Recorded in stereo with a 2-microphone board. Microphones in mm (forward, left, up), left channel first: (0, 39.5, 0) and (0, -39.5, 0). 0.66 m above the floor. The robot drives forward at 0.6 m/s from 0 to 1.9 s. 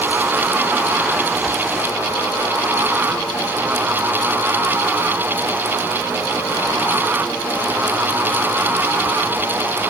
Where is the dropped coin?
No dropped coin in this recording.